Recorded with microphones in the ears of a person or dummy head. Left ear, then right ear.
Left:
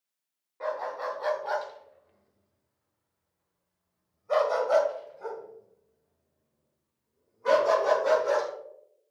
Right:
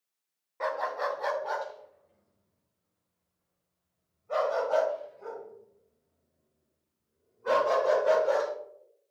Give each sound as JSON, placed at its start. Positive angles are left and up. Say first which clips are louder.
{"t": 0.6, "sound": "a dog barking", "louder": "right 2 dB", "side_deg": -30, "distance_m": 1.1}